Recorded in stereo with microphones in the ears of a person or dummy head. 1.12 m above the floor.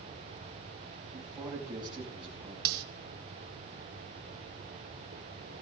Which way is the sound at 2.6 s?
85° right.